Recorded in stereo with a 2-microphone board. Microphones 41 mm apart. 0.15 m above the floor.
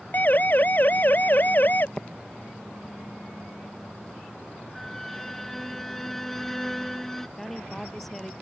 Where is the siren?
45° left (ahead or behind).